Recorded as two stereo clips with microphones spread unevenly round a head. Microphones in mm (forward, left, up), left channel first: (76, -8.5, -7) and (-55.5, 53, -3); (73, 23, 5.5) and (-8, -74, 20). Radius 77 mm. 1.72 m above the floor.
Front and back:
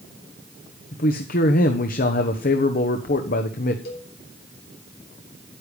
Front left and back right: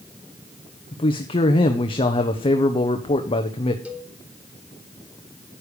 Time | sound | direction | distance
0.9 | a man speaking | straight ahead | 1.3 m
3.9 | a cowbell | 50° right | 3 m